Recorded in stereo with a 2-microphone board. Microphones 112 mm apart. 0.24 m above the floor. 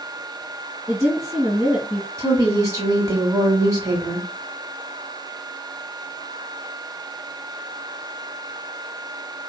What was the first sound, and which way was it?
A woman speaking, 15° right (ahead or behind).